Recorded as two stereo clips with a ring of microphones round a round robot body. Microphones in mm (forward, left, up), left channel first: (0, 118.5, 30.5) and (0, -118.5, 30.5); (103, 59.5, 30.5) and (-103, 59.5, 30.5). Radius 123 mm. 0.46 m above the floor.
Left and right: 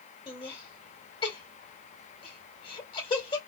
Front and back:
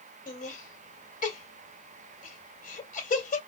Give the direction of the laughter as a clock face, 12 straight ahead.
11 o'clock.